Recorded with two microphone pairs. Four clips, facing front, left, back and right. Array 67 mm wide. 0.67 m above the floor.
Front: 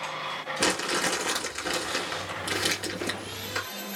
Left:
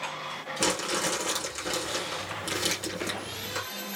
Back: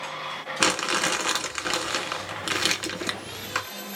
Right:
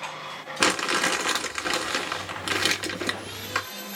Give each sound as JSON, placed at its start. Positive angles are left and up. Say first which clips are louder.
{"t": 0.6, "sound": "crumpling", "louder": "right 6 dB, back 3 dB", "azimuth_deg": -130, "distance_m": 1.5}